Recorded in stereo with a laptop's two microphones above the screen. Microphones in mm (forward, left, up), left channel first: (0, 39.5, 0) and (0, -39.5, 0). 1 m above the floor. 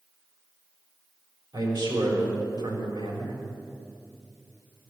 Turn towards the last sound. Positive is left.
turn(degrees=-65)  # may be behind; listen again after turning